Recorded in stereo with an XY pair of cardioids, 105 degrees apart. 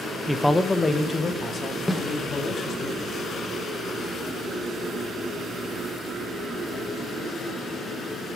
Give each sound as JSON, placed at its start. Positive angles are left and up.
{"t": 0.3, "sound": "a man speaking", "azimuth_deg": 0, "distance_m": 0.5}
{"t": 1.9, "sound": "a snare drum", "azimuth_deg": 15, "distance_m": 1.5}